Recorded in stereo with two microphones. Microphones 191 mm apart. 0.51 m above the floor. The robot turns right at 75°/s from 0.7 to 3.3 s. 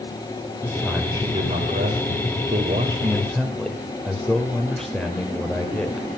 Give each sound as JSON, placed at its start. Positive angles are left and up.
{"t": 0.6, "sound": "a man speaking", "azimuth_deg": 165, "distance_m": 2.0}